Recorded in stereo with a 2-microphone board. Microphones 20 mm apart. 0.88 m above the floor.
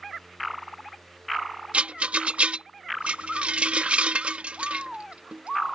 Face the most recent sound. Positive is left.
turn(degrees=-80)